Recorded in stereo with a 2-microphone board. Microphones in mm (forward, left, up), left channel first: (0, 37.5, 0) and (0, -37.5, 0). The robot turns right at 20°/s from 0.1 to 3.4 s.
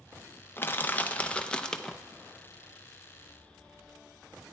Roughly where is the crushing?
Left.